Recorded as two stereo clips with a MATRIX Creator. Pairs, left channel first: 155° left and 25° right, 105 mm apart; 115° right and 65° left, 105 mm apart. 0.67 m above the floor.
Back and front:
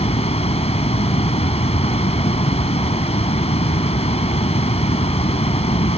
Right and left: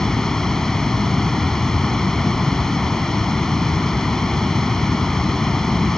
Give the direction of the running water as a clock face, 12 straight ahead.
7 o'clock.